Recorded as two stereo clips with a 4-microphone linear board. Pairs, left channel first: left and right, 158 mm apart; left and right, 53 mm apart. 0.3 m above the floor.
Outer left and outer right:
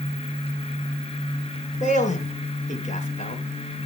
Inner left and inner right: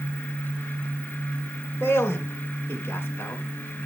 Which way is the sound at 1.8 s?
50° left (ahead or behind).